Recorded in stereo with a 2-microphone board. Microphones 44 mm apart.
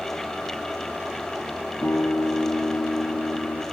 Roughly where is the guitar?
Left.